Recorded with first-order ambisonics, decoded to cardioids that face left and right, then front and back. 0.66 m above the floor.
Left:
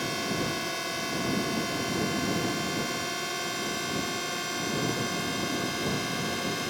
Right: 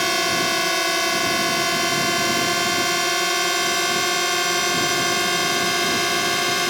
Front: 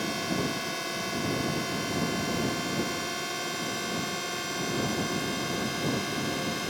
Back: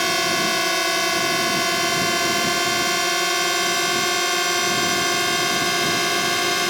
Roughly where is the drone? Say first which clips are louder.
Right 11 dB, back 11 dB; behind right.